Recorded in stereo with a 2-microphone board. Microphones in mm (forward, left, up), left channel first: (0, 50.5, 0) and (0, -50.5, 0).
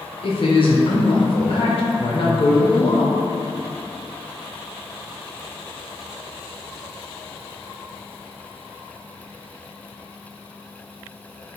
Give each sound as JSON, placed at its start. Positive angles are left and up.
{"t": 0.2, "sound": "a woman speaking", "side_deg": 65, "distance_m": 0.6}